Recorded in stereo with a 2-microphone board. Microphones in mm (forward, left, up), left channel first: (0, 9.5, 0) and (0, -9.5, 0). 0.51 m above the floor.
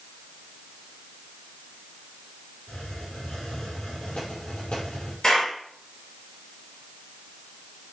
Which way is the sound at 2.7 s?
60° left (ahead or behind).